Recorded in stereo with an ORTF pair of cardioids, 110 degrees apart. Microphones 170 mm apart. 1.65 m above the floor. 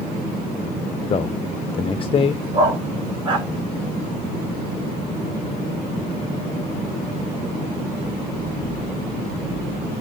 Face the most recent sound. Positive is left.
turn(degrees=-30)